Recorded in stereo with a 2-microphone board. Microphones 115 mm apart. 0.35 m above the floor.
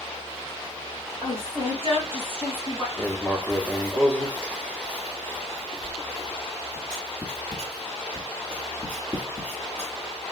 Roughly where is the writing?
Centre.